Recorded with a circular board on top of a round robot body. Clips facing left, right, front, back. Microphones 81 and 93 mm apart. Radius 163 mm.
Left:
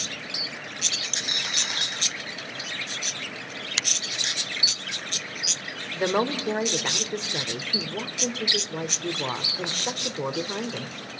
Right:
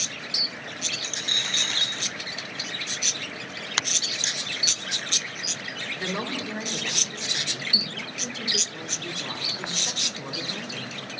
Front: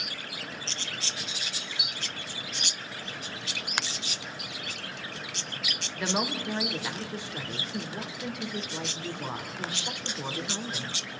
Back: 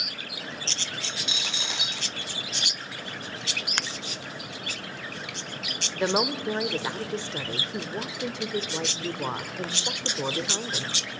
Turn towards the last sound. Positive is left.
turn(degrees=125)